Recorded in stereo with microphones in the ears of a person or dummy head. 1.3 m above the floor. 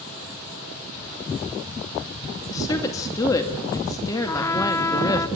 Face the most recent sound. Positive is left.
turn(degrees=15)  # may be behind; listen again after turning